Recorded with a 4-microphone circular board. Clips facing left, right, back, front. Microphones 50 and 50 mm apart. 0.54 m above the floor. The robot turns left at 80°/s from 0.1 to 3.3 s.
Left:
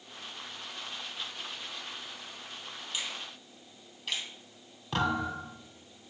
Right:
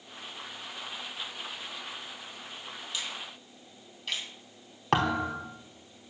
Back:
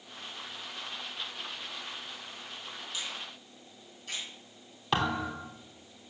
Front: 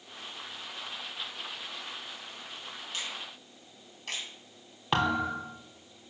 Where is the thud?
75° right, 3 m.